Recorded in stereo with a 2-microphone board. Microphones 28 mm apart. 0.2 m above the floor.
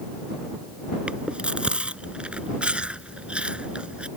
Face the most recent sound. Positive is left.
turn(degrees=-45)  # may be behind; listen again after turning